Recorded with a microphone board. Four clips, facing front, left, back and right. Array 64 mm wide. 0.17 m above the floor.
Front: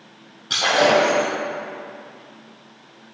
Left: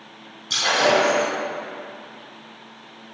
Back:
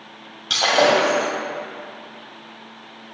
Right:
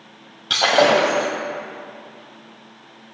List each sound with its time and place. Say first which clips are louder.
0.5 s breaking glass: right 4 dB, even; 105° right, 2.5 m